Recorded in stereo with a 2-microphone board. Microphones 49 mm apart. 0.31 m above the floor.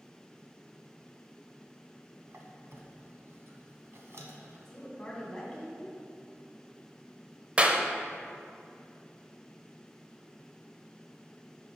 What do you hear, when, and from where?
2.3 s a squeak: 65° right (ahead or behind), 1.0 m
4.7 s a woman speaking: 10° left (ahead or behind), 2.5 m
7.6 s a clap: 30° right (ahead or behind), 0.7 m